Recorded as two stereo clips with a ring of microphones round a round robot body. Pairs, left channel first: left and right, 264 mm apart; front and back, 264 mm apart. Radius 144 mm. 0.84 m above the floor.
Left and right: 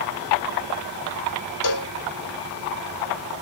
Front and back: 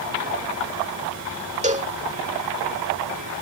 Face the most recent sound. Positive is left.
turn(degrees=115)